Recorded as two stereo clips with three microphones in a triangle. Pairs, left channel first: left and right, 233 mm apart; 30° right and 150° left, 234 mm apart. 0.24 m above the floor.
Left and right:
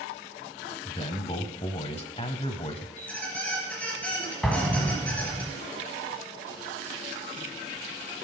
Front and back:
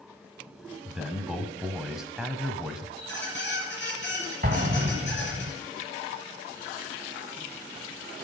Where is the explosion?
Straight behind, 1.2 m.